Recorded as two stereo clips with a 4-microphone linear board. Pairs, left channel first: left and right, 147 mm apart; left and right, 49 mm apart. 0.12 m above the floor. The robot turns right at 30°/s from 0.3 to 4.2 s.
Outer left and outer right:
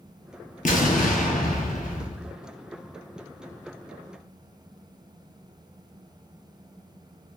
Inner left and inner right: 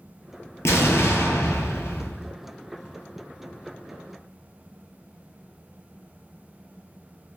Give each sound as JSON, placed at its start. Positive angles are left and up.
{"t": 0.7, "sound": "an explosion", "azimuth_deg": 75, "distance_m": 0.6}